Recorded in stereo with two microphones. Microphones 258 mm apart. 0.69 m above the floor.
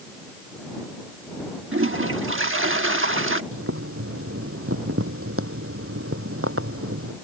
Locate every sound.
1.7 s a toilet flushing: 50° right (ahead or behind)
3.5 s boiling: 60° right (ahead or behind)